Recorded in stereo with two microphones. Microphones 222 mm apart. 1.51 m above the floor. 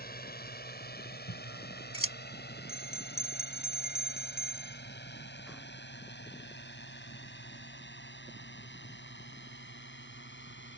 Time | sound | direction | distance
0.0 | a drone | 45° left (ahead or behind) | ?
1.3 | scissors | 80° left | ?
2.7 | a bell | 5° right (ahead or behind) | ?